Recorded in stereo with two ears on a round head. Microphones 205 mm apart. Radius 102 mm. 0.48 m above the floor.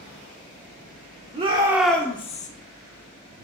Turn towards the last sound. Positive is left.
turn(degrees=35)  # may be behind; listen again after turning